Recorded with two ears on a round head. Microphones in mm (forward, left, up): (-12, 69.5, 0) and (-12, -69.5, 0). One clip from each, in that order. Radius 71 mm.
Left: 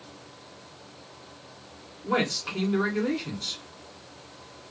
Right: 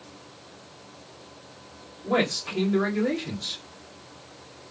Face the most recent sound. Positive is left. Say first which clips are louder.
# right 2 dB
turn(degrees=50)  # may be behind; listen again after turning